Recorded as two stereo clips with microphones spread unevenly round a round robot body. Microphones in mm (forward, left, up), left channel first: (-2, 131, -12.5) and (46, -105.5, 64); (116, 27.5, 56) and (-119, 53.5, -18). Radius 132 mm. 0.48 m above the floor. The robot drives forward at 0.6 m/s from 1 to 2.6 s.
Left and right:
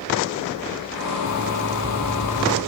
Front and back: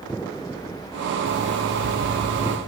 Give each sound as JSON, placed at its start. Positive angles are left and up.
{"t": 1.3, "sound": "an alarm clock", "azimuth_deg": -125, "distance_m": 1.6}